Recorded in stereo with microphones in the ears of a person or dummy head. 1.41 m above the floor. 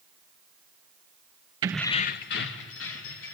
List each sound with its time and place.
1.6 s keys jangling: 25° right (ahead or behind), 0.5 m; by 3.3 s 80° left, 2.5 m